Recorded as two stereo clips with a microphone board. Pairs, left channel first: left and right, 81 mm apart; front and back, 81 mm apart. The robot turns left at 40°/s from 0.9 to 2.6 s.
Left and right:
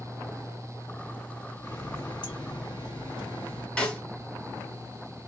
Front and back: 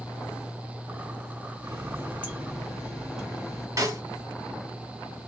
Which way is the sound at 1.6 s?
135° left.